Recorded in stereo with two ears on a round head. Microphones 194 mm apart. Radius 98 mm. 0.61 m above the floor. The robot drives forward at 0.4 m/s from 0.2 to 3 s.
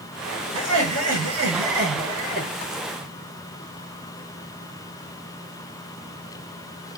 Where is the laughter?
80° right, 7 m; by 2.5 s 75° right (ahead or behind), 7 m.